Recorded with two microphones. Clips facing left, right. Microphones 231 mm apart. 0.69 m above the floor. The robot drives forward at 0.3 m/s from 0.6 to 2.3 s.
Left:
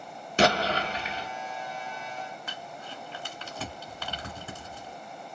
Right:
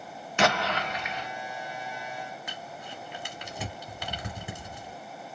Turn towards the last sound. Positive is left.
turn(degrees=-15)  # may be behind; listen again after turning